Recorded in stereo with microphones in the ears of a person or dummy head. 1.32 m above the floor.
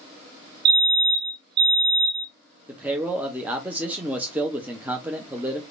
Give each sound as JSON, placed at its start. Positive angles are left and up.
{"t": 0.7, "sound": "a fire alarm", "side_deg": -55, "distance_m": 1.4}
{"t": 2.7, "sound": "a man speaking", "side_deg": -10, "distance_m": 0.7}